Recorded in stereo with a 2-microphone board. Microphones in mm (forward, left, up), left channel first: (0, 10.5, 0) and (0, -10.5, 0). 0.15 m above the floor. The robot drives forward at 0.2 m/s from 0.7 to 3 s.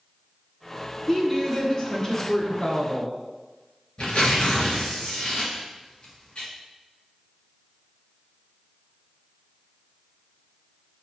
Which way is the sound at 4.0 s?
55° left (ahead or behind).